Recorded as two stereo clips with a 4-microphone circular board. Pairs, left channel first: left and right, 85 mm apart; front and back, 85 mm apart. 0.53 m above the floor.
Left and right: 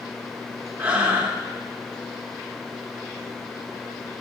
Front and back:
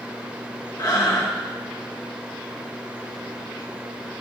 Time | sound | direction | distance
0.8 | breathing | 25° right | 0.8 m